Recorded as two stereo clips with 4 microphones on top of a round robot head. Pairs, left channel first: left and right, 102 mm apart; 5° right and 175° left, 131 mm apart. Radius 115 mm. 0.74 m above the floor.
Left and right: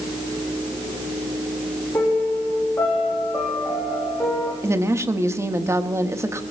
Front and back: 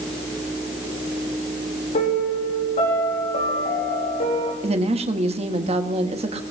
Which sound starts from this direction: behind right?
A woman speaking, at 4.6 s.